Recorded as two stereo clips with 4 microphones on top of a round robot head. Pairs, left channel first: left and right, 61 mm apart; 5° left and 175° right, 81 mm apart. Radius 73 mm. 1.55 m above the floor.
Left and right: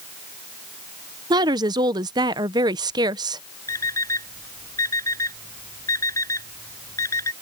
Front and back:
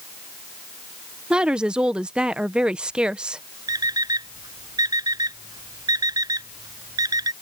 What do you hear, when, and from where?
1.3 s a woman speaking: 95° right
3.7 s an alarm clock: 140° left